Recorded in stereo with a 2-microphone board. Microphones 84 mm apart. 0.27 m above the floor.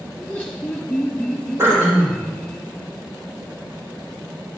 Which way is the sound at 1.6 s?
30° right (ahead or behind).